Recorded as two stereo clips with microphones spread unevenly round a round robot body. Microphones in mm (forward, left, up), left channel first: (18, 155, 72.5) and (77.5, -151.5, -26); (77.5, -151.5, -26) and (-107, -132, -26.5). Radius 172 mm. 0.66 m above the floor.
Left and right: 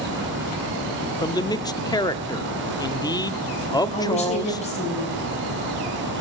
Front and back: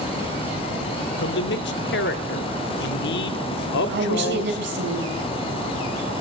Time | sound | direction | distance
1.2 | a man speaking | 15° left | 1.1 m
3.9 | a woman speaking | 175° left | 3.5 m